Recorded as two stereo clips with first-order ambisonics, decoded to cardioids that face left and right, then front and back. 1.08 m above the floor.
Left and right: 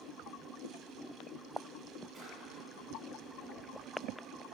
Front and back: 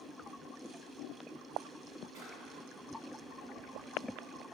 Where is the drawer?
165° right, 2.5 m.